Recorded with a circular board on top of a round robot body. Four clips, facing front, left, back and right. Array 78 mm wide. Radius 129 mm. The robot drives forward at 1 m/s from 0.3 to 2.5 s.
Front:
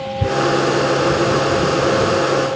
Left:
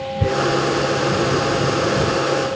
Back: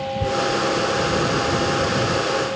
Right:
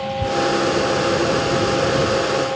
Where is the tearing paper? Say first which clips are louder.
Left 1 dB, front 6 dB; 70° left; by 0.6 s 90° left.